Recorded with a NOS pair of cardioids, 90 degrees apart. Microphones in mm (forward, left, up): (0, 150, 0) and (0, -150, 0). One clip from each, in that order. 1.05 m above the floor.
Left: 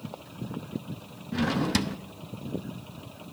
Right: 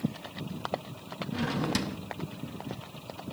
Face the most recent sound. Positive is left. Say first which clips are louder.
# left 4 dB
turn(degrees=20)